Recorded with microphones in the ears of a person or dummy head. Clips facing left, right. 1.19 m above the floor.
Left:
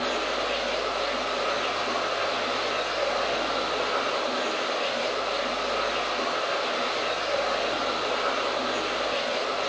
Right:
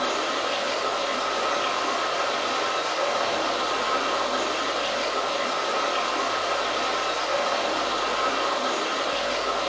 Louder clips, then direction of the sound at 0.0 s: Right 1 dB; 65° right (ahead or behind).